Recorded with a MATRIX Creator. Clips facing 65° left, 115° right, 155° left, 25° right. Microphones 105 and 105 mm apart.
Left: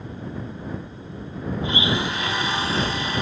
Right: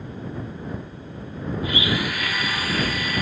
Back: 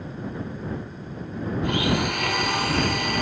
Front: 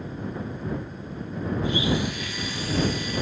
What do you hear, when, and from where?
1.6 s a blender: 130° left